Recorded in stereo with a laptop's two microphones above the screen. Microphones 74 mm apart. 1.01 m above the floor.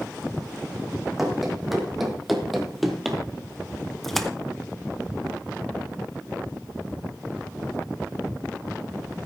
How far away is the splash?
About 0.9 m.